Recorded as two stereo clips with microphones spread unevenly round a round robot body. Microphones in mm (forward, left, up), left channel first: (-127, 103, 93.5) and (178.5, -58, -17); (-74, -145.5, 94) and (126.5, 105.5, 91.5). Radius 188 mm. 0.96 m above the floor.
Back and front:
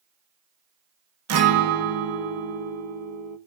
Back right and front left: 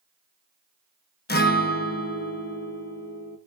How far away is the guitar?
About 1.3 m.